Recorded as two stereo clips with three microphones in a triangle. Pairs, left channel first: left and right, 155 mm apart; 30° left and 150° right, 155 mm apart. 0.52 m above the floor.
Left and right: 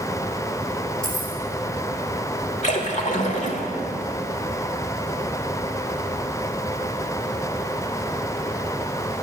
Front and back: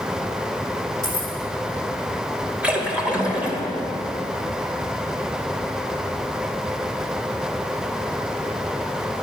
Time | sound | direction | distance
1.0 | keys jangling | 125° right | 3 m
2.6 | a splash | 130° left | 1.2 m